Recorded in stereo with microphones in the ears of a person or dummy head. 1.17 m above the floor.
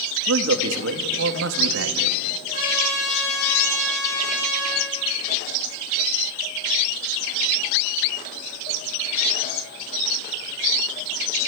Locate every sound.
0.3 s a man speaking: 75° right (ahead or behind), 1.6 m
2.5 s a trumpet: 40° left (ahead or behind), 9.5 m